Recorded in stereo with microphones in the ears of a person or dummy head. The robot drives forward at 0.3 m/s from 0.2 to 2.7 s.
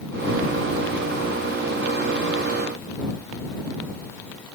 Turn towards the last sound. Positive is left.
No sound to turn to.